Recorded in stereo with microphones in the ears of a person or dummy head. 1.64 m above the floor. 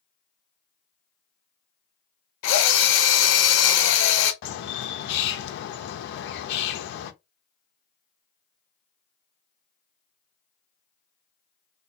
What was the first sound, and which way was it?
A drill, 55° left (ahead or behind).